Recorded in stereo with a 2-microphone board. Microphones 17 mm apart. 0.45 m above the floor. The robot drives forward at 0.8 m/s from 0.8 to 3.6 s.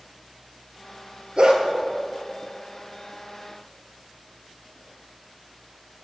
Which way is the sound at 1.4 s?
70° right (ahead or behind).